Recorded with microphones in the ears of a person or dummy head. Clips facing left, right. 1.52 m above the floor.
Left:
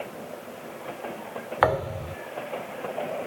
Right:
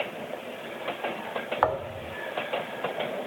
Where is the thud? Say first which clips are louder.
Left 5 dB; 30° left (ahead or behind).